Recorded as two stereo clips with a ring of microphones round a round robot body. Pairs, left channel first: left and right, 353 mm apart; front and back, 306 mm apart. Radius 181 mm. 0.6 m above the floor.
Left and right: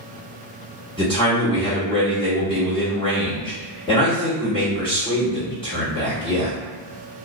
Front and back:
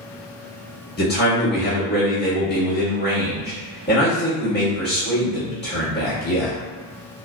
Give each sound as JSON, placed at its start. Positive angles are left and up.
{"t": 1.0, "sound": "a man speaking", "azimuth_deg": 25, "distance_m": 1.4}